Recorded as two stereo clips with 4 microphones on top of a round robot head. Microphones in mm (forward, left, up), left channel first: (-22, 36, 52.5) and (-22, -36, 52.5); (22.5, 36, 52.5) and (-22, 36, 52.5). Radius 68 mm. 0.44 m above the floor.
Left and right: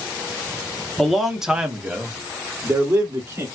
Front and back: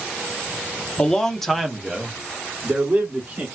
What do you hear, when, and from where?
1.0 s a man speaking: 10° left, 1.0 m; by 3.5 s 130° right, 1.5 m